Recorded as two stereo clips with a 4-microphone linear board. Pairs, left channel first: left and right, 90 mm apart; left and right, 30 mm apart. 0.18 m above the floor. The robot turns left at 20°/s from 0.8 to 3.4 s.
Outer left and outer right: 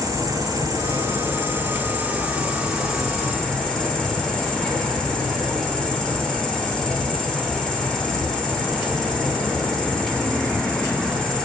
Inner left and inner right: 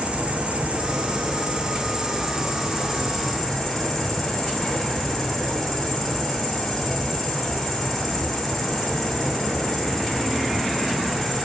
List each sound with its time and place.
0.0 s an insect: 140° right, 5 m; by 11.4 s 170° left, 5 m